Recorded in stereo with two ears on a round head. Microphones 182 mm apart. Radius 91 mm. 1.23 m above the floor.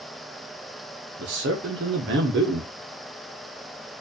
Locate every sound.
1.2 s a man speaking: 60° right (ahead or behind), 0.8 m